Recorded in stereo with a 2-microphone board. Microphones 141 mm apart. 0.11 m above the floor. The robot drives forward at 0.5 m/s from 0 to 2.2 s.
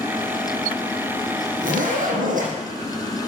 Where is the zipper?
75° right (ahead or behind), 4 m.